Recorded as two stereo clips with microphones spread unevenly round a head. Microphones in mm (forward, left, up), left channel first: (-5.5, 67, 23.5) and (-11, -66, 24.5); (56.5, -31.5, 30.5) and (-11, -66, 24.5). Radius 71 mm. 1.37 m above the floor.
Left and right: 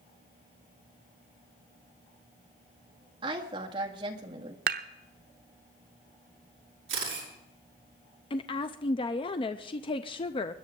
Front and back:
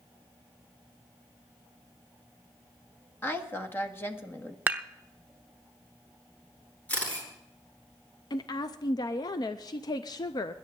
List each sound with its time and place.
3.2 s a woman speaking: 35° right, 1.9 m
4.7 s dishes clattering: 90° right, 0.7 m
6.9 s a camera shutter: 45° right, 7.5 m
8.3 s a woman speaking: 45° left, 0.5 m